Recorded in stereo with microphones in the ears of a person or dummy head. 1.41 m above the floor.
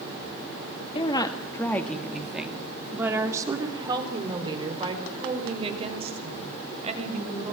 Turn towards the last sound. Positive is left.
turn(degrees=-40)  # may be behind; listen again after turning